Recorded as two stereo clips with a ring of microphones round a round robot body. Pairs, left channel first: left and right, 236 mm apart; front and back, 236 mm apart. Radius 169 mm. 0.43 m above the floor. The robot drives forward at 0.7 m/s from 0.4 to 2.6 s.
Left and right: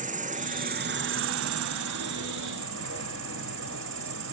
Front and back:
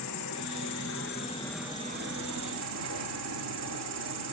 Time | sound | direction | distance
0.0 | an insect | 30° right | 1.0 m